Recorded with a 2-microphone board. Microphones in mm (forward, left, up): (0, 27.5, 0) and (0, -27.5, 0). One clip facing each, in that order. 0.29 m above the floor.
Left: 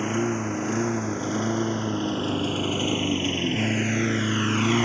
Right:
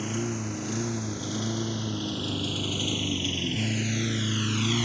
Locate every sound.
0.0 s a lawn mower: 35° left (ahead or behind); by 4.9 s 40° left (ahead or behind)